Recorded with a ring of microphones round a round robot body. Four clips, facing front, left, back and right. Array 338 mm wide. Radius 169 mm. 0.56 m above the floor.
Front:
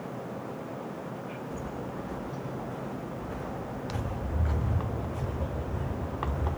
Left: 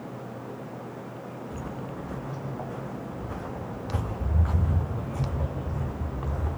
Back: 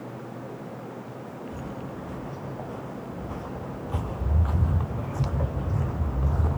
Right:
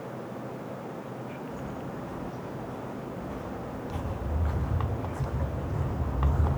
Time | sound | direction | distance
1.5 | footsteps | 130° left | 6 m